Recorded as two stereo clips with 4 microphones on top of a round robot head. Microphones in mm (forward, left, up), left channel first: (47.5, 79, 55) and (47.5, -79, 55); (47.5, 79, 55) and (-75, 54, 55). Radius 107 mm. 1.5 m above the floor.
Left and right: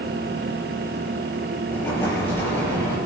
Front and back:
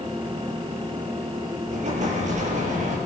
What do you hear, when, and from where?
1.7 s an explosion: 170° left, 7 m